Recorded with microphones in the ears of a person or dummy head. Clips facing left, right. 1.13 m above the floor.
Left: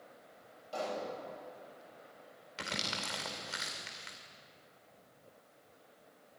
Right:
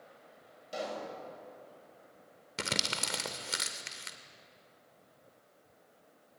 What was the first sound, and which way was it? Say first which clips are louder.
A pop: even; 25° right (ahead or behind).